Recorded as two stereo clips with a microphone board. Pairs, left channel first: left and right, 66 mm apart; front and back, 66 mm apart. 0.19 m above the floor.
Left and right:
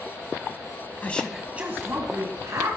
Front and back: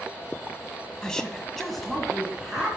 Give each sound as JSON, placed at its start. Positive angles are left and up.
{"t": 1.0, "sound": "a woman speaking", "azimuth_deg": 65, "distance_m": 1.1}